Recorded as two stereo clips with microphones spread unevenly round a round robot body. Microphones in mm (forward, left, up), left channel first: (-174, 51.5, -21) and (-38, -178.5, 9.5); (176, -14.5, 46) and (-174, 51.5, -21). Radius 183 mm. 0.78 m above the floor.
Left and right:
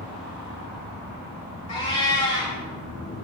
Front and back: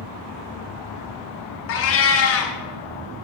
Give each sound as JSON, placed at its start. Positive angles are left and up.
{"t": 1.7, "sound": "a cat meowing", "azimuth_deg": 45, "distance_m": 0.8}